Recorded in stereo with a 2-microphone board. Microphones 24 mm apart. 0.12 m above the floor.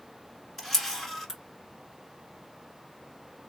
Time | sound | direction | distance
0.6 | a camera shutter | 15° left (ahead or behind) | 1.3 m